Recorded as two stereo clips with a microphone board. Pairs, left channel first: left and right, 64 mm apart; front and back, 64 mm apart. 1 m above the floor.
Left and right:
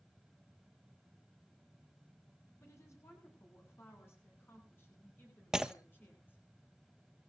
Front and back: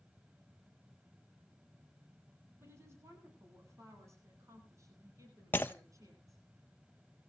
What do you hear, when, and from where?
2.6 s a woman speaking: 135° left, 9.5 m; by 6.4 s 150° left, 12.5 m
5.5 s breaking glass: 15° right, 1.1 m